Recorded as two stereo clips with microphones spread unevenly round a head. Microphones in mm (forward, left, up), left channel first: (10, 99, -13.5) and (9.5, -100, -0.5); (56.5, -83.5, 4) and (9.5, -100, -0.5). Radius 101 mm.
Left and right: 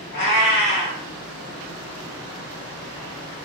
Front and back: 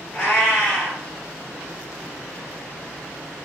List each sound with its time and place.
0.1 s a cat meowing: 95° left, 1.8 m